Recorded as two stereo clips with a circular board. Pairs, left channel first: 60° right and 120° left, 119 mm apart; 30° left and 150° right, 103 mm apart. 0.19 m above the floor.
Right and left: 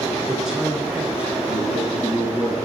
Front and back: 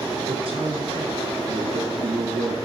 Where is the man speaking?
155° right, 1.9 m; by 2.5 s 165° right, 3.5 m.